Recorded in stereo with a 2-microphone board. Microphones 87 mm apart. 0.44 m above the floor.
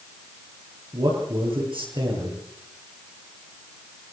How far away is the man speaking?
About 9.5 m.